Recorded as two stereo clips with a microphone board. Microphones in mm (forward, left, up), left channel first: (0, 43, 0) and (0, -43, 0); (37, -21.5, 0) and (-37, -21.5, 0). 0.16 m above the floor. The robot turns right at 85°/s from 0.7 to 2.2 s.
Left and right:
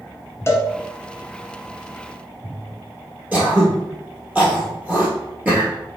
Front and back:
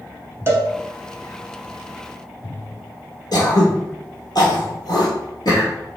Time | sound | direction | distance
0.5 | a cowbell | 140° left | 0.7 m
3.3 | throat clearing | 20° right | 1.7 m